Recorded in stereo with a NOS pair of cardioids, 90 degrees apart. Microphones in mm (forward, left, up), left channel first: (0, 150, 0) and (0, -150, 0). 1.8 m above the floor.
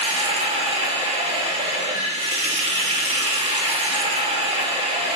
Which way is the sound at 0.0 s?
20° right.